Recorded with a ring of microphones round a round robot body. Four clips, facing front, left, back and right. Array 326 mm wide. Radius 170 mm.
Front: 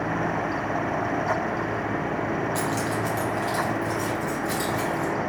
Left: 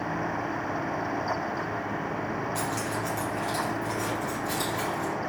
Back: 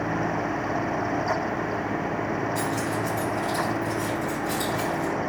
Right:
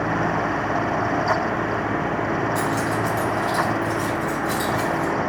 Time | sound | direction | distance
2.5 | keys jangling | straight ahead | 1.5 m